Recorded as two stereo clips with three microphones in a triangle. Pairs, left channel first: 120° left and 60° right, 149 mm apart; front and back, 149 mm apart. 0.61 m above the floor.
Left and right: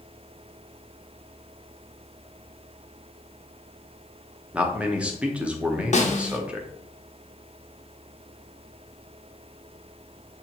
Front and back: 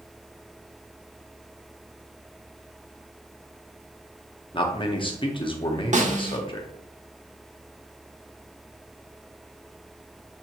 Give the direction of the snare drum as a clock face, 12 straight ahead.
7 o'clock.